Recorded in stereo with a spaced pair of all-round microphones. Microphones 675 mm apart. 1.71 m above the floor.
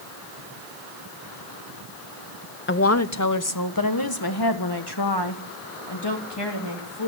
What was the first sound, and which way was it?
A woman speaking, 20° left (ahead or behind).